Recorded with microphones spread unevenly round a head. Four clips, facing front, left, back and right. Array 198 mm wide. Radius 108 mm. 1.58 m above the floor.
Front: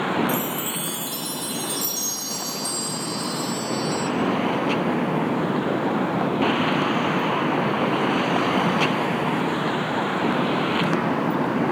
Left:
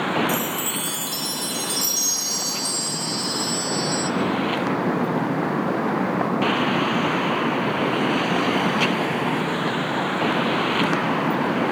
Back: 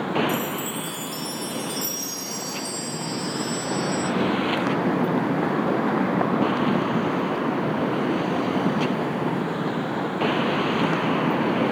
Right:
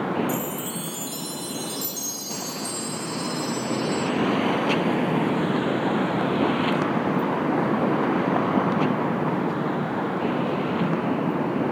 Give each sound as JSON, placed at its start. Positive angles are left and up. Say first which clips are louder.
{"t": 0.3, "sound": "a chime", "louder": "left 3 dB, front 1 dB", "azimuth_deg": -15, "distance_m": 2.5}